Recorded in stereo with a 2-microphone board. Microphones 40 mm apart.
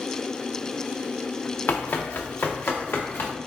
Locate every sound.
1.7 s running footsteps: 60° left (ahead or behind), 0.6 m; by 3.3 s 80° left, 1.4 m